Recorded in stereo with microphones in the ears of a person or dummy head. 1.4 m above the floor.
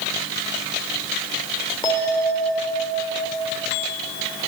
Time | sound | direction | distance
1.8 | a bell | 20° left (ahead or behind) | 2.5 m